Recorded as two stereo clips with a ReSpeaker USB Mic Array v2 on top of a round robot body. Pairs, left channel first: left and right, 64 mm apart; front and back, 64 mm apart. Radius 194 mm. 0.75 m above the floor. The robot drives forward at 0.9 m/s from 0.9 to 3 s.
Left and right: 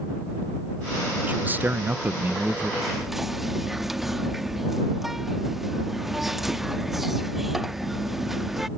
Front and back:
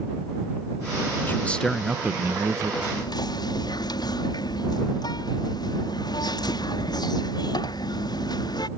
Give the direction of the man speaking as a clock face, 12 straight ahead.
1 o'clock.